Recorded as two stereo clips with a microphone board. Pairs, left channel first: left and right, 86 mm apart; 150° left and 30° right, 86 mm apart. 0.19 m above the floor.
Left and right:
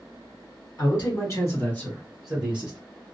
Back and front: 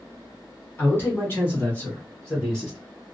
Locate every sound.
0.8 s a man speaking: 95° left, 2.0 m; by 2.8 s 120° right, 1.4 m